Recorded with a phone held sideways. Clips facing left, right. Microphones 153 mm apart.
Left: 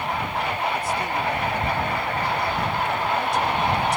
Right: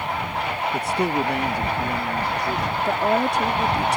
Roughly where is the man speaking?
Right.